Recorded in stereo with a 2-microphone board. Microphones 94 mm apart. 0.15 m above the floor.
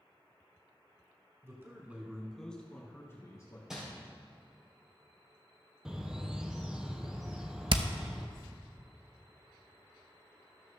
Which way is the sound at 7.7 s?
70° right (ahead or behind).